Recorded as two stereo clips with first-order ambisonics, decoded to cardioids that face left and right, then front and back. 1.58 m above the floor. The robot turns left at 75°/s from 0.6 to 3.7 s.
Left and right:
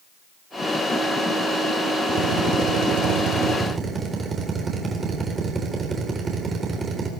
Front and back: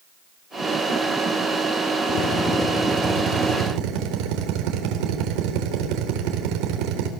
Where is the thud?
No thud in this recording.